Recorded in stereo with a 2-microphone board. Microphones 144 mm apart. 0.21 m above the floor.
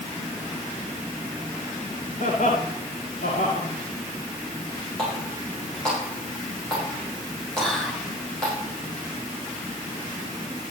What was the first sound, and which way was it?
Laughter, 65° left (ahead or behind).